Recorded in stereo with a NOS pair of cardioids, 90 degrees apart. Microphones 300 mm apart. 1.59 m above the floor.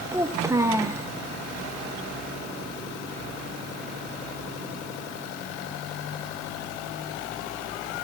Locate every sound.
0.1 s a child speaking: 10° right, 1.0 m